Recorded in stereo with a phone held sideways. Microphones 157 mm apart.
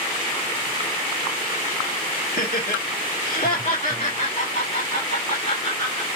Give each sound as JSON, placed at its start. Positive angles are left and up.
{"t": 2.3, "sound": "laughter", "side_deg": 70, "distance_m": 1.3}